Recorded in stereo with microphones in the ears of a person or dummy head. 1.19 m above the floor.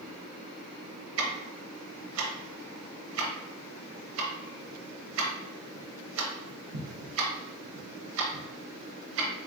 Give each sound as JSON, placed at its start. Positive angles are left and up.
{"t": 1.2, "sound": "ticking", "side_deg": -75, "distance_m": 1.2}